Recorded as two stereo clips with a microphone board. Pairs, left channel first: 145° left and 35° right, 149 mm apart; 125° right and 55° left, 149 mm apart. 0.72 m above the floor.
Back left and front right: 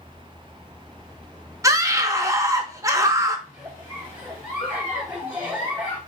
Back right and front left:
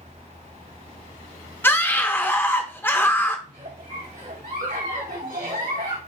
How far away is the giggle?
About 2.5 m.